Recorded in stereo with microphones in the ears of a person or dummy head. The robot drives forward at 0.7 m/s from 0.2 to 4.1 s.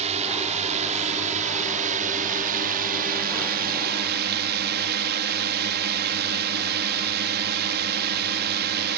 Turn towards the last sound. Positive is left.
turn(degrees=-55)  # may be behind; listen again after turning